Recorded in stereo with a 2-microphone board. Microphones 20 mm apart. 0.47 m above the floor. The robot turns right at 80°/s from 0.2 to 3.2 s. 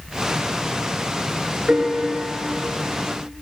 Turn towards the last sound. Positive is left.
turn(degrees=80)